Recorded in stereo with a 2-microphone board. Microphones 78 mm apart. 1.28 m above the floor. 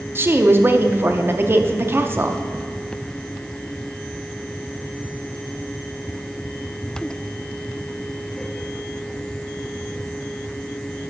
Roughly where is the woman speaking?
Right.